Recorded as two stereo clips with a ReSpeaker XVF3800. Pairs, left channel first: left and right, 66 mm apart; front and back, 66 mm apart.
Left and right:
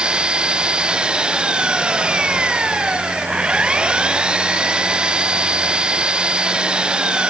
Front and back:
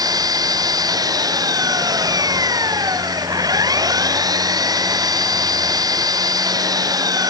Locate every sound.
0.0 s an engine running: 165° right